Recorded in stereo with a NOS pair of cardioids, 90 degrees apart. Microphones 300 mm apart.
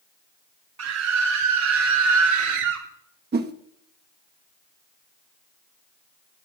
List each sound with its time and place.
0.8 s a scream: 60° right, 4 m; by 2.9 s 75° right, 4.5 m
3.3 s a whoosh: 35° right, 1.6 m